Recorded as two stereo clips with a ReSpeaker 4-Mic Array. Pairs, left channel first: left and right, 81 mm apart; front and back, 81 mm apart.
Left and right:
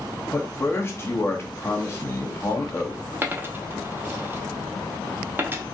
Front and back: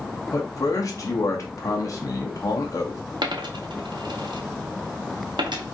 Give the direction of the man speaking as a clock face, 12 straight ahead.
11 o'clock.